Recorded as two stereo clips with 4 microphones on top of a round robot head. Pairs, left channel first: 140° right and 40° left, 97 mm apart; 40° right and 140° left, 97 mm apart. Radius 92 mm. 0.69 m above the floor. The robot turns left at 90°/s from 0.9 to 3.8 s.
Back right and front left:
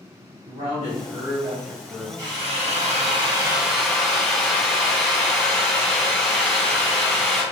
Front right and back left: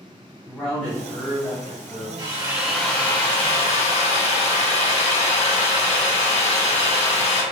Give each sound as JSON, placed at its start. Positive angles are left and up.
{"t": 0.5, "sound": "a man speaking", "azimuth_deg": 50, "distance_m": 1.7}
{"t": 2.2, "sound": "a drill", "azimuth_deg": 95, "distance_m": 1.7}